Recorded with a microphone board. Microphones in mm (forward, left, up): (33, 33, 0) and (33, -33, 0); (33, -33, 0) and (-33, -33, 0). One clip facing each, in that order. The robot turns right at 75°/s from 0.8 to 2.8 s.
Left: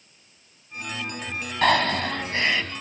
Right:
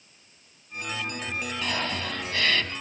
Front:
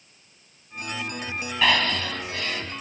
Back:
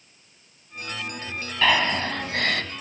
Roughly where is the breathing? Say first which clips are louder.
Left 12 dB, back 1 dB; left.